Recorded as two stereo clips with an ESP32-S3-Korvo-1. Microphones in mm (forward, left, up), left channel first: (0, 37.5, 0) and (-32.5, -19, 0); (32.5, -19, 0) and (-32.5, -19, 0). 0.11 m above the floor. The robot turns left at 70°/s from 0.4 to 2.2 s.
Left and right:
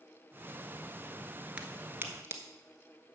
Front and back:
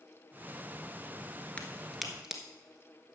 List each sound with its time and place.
1.6 s a crack: 60° right, 1.1 m; by 2.4 s 100° right, 1.1 m